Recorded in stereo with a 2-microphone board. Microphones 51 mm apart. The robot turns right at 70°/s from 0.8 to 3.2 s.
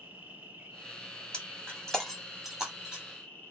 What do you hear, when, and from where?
0.0 s an insect: 140° right, 1.4 m; by 3.5 s 25° left, 1.4 m
1.3 s breaking glass: 15° left (ahead or behind), 1.1 m; by 3.0 s 15° right (ahead or behind), 1.1 m